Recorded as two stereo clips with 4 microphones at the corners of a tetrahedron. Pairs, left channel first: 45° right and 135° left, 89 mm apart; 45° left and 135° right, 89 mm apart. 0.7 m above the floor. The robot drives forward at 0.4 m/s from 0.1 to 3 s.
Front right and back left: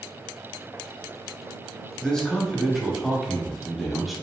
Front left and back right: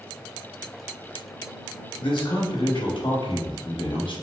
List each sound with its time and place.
2.0 s a man speaking: 35° left, 1.5 m; by 4.1 s 45° left, 1.2 m